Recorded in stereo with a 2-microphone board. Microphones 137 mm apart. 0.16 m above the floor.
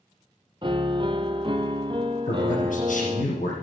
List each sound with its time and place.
0.6 s a piano: 40° right (ahead or behind), 0.7 m
2.2 s a man speaking: 70° left (ahead or behind), 4.5 m